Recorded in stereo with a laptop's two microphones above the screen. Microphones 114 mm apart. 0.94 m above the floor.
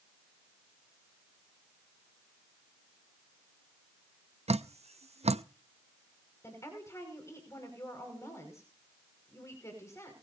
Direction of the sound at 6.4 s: 25° left (ahead or behind).